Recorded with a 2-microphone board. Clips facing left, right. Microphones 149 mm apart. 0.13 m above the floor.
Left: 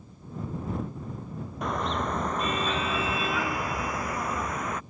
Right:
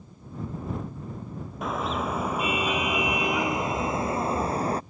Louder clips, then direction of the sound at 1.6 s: Right 1 dB; centre (ahead or behind).